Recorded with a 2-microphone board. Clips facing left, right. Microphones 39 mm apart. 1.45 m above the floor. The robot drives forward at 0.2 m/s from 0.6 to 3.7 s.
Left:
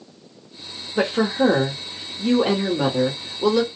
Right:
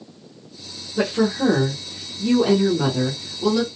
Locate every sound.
1.0 s a woman speaking: 40° left (ahead or behind), 0.7 m; by 3.7 s 25° left (ahead or behind), 1.2 m